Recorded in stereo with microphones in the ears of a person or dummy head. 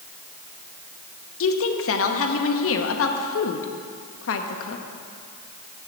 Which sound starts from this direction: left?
A woman speaking, at 1.4 s.